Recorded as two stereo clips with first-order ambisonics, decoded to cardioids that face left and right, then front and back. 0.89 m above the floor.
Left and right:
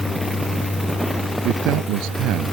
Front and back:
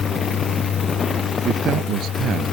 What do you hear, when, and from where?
1.4 s a man speaking: 125° right; by 2.5 s 120° right